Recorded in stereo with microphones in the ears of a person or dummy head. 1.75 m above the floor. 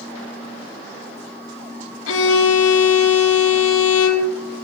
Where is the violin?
85° left, 2.5 m.